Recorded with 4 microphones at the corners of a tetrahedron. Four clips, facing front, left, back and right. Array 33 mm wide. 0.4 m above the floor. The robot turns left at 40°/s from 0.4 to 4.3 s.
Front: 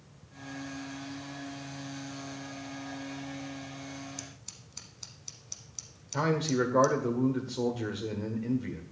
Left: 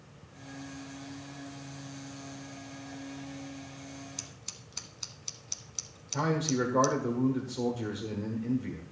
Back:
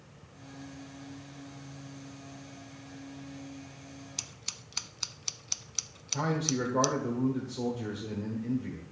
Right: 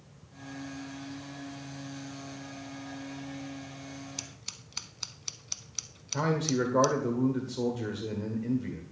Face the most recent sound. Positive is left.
turn(degrees=-10)